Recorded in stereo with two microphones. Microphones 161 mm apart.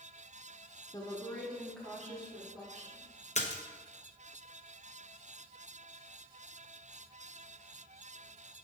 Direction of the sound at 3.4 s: 45° left (ahead or behind).